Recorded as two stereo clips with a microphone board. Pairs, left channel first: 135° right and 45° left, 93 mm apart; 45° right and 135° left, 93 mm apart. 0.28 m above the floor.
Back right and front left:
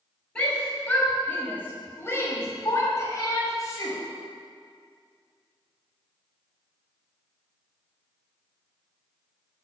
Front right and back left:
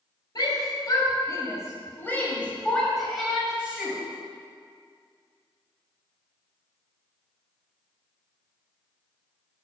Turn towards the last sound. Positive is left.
turn(degrees=-160)